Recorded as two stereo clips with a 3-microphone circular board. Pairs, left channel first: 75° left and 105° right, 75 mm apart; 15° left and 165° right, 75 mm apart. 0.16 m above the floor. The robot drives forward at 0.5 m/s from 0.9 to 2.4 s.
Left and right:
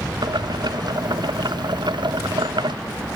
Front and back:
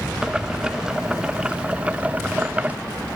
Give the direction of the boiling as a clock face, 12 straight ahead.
3 o'clock.